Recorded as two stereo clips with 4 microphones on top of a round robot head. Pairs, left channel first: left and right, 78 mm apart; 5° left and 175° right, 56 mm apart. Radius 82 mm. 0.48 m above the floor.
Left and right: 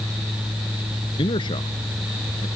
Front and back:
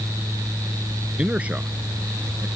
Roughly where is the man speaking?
Behind left.